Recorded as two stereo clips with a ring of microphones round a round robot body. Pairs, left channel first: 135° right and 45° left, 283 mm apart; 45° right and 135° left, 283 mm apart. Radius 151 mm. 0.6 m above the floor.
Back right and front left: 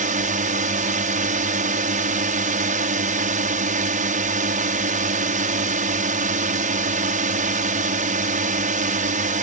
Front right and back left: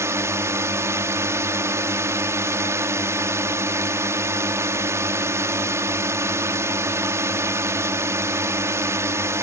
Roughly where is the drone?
Ahead left.